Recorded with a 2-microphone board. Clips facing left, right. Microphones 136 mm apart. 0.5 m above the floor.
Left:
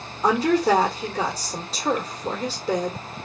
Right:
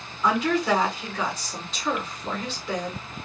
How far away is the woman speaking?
About 1.4 m.